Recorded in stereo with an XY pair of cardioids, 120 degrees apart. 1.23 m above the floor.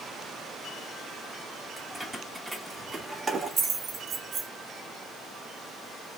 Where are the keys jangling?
5° right, 2.5 m; by 4.5 s 65° right, 1.2 m.